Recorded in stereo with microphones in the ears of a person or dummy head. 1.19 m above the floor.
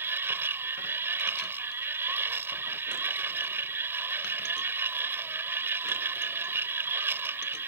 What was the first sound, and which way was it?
A machine running, 15° right (ahead or behind).